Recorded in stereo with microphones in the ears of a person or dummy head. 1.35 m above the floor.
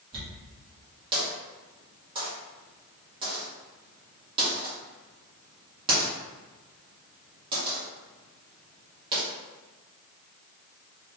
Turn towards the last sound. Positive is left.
turn(degrees=-30)  # may be behind; listen again after turning